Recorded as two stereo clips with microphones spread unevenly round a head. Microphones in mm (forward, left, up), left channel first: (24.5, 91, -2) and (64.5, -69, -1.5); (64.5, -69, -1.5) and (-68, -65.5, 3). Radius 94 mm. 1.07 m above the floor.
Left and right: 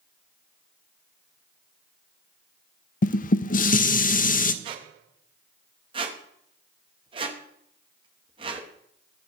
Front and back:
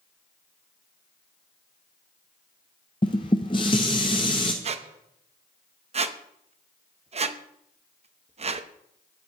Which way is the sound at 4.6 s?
140° right.